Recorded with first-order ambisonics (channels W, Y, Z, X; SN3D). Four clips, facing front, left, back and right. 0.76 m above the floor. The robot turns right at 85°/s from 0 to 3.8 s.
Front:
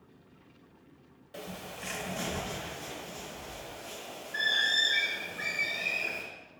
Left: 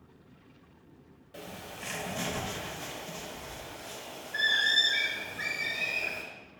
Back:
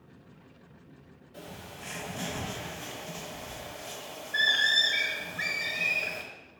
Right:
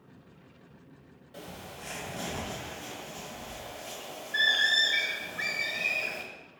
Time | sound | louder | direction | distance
1.3 | a bird | left 1 dB, front 3 dB | 10° left | 0.6 m